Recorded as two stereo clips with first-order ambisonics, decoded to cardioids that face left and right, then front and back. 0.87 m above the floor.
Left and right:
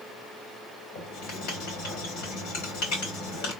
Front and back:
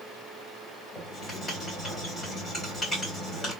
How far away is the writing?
About 2.5 m.